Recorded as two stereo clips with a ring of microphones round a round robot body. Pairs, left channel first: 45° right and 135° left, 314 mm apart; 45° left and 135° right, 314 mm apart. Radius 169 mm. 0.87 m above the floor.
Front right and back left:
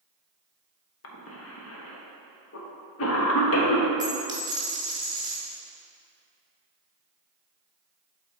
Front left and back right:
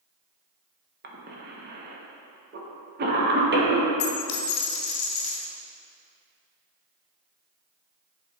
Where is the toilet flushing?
No toilet flushing in this recording.